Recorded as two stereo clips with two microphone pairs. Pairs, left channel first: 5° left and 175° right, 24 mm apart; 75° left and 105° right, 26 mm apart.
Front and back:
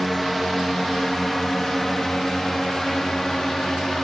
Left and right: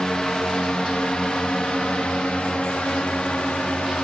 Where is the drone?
90° left; by 4.0 s 70° left.